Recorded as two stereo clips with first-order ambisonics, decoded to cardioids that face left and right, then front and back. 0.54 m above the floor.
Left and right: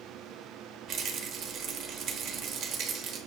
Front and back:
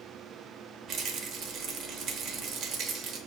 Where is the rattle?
135° right, 0.6 m.